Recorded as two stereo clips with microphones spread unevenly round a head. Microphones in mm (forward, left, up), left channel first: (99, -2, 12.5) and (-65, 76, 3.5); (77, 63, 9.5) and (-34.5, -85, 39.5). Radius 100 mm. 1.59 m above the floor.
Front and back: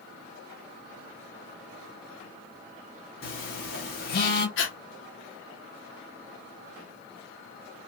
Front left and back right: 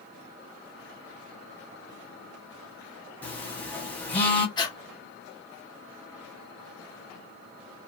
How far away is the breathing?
About 1.0 m.